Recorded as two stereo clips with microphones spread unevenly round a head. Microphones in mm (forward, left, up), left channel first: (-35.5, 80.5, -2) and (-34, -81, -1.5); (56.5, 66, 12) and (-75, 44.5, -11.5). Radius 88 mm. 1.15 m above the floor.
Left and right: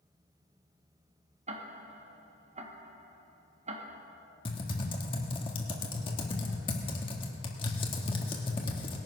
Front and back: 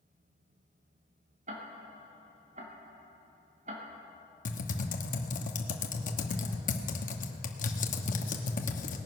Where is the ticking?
135° right, 1.4 m.